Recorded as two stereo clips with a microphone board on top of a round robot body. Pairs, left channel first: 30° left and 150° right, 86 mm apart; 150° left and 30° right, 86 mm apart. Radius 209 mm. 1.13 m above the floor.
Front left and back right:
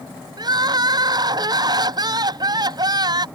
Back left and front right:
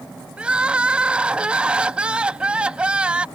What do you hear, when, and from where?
0.4 s crying: 110° right